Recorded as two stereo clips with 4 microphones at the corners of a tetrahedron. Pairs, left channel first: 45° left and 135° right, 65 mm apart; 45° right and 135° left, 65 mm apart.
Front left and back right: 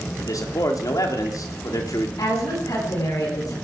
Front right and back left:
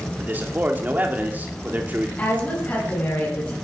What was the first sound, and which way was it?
A man speaking, 70° left.